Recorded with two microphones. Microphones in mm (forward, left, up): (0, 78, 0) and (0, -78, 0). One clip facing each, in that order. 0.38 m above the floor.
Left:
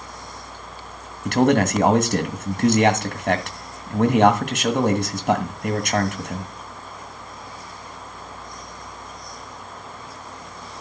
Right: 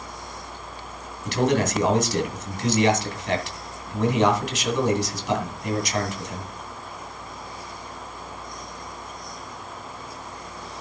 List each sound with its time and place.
1.2 s a man speaking: 60° left (ahead or behind), 2.5 m